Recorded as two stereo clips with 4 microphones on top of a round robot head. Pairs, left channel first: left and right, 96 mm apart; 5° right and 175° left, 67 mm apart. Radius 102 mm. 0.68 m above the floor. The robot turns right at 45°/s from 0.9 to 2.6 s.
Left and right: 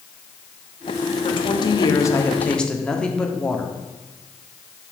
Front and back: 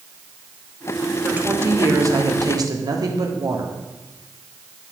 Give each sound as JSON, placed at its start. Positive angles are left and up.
{"t": 1.2, "sound": "a woman speaking", "azimuth_deg": 110, "distance_m": 1.5}